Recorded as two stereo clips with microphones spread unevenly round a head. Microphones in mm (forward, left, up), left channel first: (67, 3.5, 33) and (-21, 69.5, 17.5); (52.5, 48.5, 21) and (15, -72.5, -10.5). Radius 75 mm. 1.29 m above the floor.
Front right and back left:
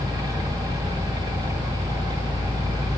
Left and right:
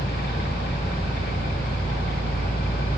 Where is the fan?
85° left, 2.5 m.